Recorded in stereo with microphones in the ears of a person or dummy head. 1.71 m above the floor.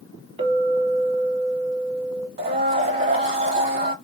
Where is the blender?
30° right (ahead or behind), 0.9 m.